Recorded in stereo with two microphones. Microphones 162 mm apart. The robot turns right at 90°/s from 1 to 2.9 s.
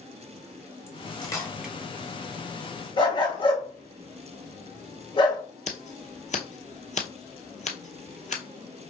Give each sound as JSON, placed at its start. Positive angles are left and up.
{"t": 0.9, "sound": "cutlery clinking", "side_deg": 40, "distance_m": 1.2}
{"t": 3.0, "sound": "a dog barking", "side_deg": 35, "distance_m": 1.1}
{"t": 5.7, "sound": "scissors", "side_deg": 50, "distance_m": 0.8}